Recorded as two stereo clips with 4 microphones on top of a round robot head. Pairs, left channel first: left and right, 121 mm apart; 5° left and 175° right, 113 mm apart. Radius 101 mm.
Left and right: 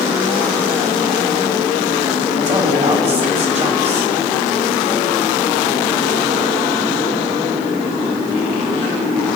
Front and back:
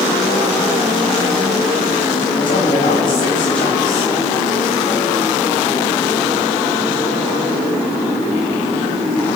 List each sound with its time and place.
2.4 s a woman speaking: 55° right, 2.5 m